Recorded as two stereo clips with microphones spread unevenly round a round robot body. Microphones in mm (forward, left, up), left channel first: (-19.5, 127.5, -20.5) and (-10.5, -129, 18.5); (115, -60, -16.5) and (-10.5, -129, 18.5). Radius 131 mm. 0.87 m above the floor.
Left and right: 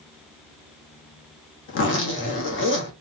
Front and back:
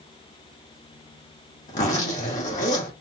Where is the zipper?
60° left, 1.5 m.